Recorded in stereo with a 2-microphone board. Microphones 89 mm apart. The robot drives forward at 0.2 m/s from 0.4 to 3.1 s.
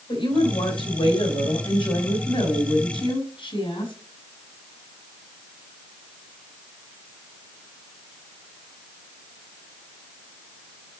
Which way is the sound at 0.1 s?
70° left (ahead or behind).